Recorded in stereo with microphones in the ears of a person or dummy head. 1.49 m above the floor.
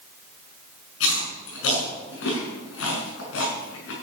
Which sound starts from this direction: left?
Chewing, at 1.0 s.